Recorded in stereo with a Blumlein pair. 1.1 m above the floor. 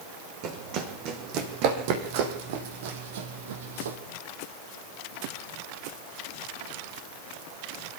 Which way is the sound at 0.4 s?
40° right.